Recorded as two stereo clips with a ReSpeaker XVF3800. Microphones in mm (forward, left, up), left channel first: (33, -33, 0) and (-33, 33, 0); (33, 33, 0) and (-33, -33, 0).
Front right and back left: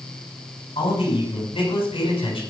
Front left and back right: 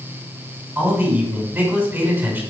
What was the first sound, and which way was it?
A man speaking, 65° right.